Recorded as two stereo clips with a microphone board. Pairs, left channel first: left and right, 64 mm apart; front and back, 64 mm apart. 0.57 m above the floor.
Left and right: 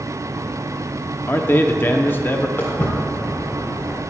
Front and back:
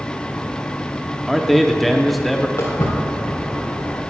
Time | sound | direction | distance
1.3 | a man speaking | 90° left | 0.7 m
2.6 | footsteps | 30° left | 3.5 m